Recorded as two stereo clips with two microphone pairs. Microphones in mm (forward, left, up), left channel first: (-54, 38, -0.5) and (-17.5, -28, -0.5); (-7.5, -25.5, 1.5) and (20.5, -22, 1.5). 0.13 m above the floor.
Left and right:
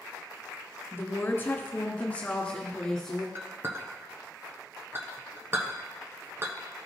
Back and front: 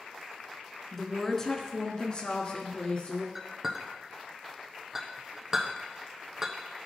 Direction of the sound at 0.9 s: 110° left.